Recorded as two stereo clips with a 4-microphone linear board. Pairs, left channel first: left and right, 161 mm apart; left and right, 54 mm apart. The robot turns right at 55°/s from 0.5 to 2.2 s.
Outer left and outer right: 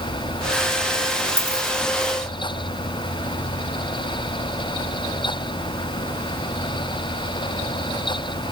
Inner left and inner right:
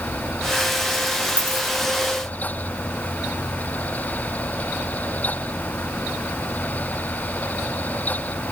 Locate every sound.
1.4 s a dropped coin: 20° right (ahead or behind), 3 m; by 1.7 s 35° right (ahead or behind), 3 m